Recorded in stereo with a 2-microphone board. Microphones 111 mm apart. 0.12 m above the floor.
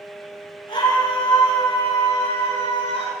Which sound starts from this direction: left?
A scream, at 0.7 s.